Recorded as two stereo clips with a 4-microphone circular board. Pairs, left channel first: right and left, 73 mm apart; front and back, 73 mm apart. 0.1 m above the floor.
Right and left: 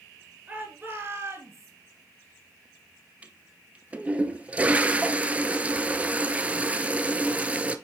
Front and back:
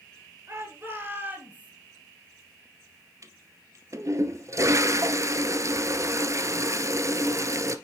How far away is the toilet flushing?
About 0.5 m.